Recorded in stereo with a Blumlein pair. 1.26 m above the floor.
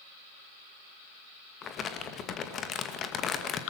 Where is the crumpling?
25° left, 2 m.